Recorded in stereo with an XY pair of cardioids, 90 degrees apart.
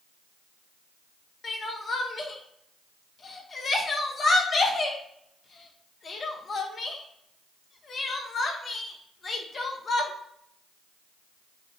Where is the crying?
45° left, 0.9 m.